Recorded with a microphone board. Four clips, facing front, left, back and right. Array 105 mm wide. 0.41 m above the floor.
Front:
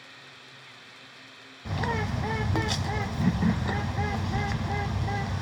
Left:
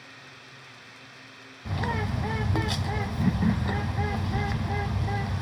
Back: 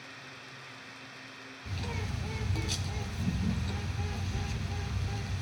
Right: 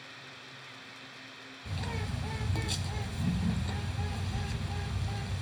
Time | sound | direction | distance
1.6 | a bird | 35° left | 1.0 m